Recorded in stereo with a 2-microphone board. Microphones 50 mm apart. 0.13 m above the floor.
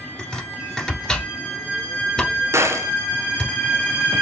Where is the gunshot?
65° right (ahead or behind), 0.6 m.